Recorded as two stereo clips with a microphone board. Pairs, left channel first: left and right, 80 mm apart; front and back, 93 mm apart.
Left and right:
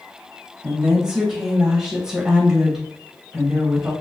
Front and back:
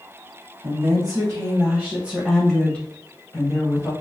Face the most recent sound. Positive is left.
turn(degrees=-5)